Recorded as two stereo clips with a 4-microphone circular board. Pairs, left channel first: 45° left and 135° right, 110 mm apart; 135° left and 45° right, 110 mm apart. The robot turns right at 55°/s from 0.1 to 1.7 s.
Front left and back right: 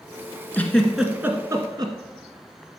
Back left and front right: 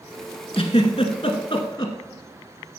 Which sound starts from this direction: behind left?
A giggle, at 0.5 s.